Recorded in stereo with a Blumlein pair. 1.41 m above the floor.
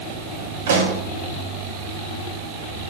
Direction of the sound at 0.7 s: 60° right.